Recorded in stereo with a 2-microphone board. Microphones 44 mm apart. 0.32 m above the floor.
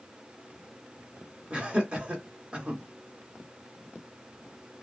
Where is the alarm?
No alarm in this recording.